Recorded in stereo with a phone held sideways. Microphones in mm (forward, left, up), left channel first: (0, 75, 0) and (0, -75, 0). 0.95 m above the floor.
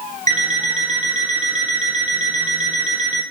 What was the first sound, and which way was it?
An alarm clock, 55° right (ahead or behind).